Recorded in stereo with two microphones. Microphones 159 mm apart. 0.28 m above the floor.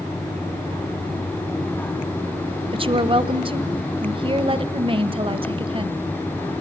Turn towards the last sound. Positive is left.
turn(degrees=-35)  # may be behind; listen again after turning